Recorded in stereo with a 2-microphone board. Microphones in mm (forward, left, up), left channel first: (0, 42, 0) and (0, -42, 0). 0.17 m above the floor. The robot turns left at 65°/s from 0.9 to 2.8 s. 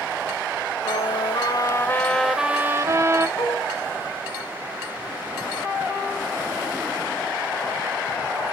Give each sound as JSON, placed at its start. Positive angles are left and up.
{"t": 0.8, "sound": "a trumpet", "azimuth_deg": 90, "distance_m": 0.9}
{"t": 3.4, "sound": "dishes clattering", "side_deg": 60, "distance_m": 5.5}